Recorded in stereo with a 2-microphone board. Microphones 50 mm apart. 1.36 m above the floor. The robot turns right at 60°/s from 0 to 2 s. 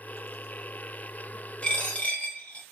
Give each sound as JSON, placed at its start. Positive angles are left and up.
{"t": 1.6, "sound": "a dropped coin", "side_deg": 20, "distance_m": 0.8}